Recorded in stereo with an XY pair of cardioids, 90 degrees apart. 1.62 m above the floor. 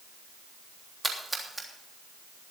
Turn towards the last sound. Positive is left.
turn(degrees=-15)